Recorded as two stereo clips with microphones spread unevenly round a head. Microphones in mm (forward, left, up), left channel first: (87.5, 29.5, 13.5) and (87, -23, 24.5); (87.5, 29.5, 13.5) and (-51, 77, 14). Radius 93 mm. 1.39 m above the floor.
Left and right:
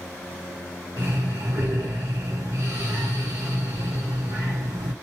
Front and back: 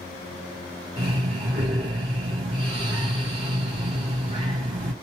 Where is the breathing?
140° right, 0.9 m.